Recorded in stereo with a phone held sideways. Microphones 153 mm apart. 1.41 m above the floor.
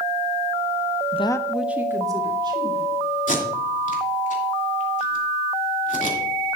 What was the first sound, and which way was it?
A woman speaking, 45° left (ahead or behind).